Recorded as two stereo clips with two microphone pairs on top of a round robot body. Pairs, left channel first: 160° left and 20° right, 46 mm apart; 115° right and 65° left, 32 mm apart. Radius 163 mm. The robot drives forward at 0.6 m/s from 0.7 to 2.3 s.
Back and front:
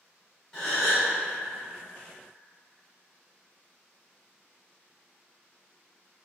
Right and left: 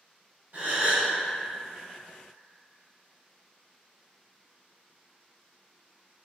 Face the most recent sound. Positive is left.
turn(degrees=110)